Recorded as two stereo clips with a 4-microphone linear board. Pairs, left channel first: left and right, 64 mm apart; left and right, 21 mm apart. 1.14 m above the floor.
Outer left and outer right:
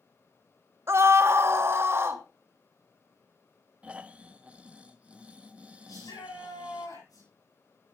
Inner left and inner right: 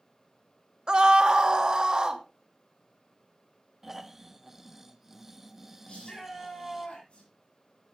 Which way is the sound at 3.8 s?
20° right (ahead or behind).